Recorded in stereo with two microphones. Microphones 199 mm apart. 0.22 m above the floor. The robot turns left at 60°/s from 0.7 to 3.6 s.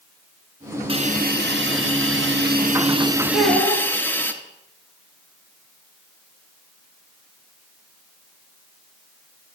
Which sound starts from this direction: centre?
A child speaking, at 3.3 s.